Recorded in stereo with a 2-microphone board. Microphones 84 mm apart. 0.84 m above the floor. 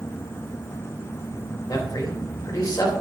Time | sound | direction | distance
1.7 | a man speaking | 45° left (ahead or behind) | 3 m